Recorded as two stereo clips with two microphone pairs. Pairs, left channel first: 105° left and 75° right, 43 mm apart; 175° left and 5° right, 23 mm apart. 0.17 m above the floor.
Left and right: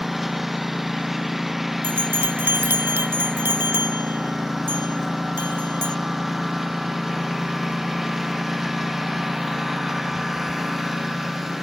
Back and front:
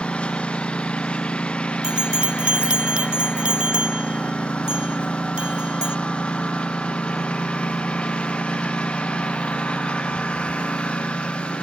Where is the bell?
40° right.